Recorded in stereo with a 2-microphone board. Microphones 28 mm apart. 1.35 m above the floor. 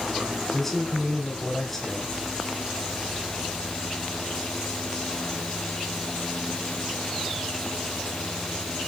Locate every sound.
0.5 s a man speaking: 15° left (ahead or behind), 3 m